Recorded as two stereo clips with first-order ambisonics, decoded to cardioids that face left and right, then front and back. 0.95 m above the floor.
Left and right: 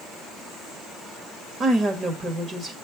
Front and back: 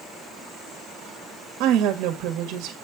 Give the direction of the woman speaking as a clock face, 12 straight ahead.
5 o'clock.